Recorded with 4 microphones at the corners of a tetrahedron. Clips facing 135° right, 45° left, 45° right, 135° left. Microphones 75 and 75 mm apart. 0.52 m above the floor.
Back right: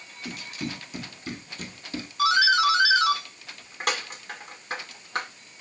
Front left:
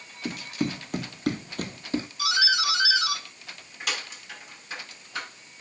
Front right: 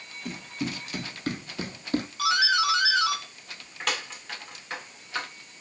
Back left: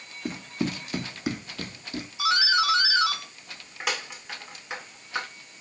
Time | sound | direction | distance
0.2 | running footsteps | 90° left | 2.5 m
2.2 | a doorbell | 150° right | 2 m